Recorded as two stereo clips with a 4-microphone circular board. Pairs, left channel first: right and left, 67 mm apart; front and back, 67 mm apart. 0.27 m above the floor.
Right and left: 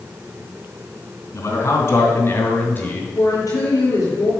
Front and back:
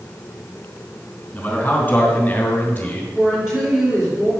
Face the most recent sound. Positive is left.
turn(degrees=-95)